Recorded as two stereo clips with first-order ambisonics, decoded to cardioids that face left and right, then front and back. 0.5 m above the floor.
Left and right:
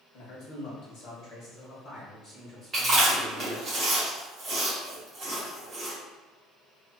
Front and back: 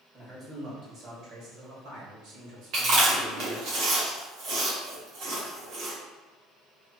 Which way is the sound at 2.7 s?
155° right.